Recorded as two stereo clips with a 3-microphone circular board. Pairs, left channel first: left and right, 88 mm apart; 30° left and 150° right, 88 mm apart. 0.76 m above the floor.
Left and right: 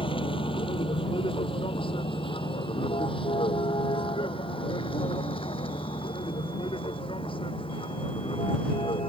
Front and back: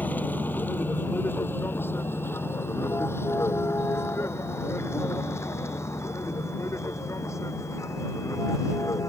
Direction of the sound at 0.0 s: 100° left.